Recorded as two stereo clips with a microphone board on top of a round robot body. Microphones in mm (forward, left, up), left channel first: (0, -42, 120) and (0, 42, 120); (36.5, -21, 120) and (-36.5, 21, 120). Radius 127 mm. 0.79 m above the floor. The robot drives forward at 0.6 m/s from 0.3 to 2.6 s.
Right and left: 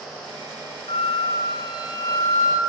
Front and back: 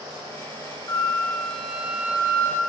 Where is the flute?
85° right, 0.7 m; by 2.6 s 150° right, 1.2 m.